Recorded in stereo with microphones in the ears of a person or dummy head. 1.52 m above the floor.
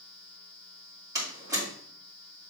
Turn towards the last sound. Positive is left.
turn(degrees=-20)  # may be behind; listen again after turning